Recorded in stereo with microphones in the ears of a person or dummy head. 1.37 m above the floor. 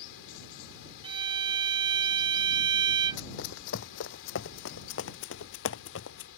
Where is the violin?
25° right (ahead or behind).